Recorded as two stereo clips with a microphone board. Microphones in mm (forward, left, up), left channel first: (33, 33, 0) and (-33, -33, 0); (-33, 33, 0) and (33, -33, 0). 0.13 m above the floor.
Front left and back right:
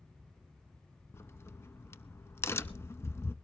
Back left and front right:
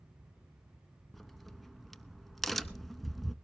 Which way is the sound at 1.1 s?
50° left.